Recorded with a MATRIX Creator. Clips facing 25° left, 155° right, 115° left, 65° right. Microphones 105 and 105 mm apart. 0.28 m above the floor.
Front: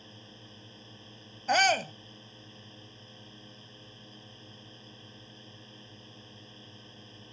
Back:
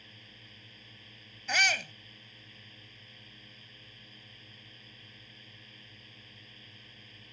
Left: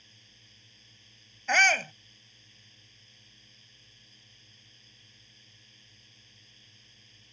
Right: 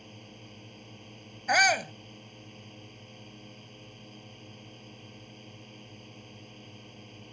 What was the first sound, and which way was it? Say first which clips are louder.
A drone: front 6 dB, right 16 dB; 40° right.